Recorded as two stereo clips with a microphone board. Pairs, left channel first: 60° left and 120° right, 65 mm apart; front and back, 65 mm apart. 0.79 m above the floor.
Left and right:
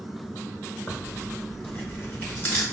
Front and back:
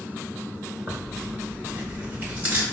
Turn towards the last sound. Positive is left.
turn(degrees=115)